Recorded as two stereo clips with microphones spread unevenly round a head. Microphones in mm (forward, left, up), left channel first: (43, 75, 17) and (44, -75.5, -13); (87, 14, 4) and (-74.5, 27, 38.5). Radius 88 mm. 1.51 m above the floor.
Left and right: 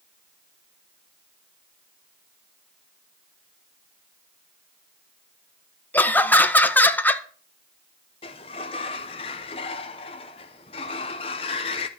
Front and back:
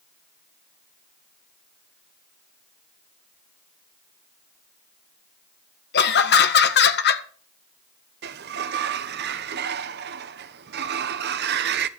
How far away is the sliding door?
About 0.9 m.